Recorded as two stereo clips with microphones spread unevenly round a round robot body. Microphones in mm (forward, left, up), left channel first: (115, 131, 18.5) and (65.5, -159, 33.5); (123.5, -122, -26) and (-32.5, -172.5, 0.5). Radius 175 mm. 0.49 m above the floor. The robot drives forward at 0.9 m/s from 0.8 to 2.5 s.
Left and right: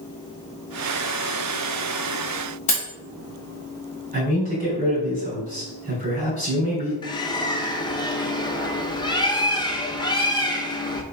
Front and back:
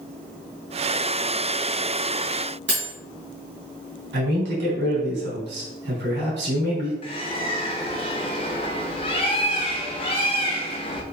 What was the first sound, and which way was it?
Cutlery clinking, 150° left.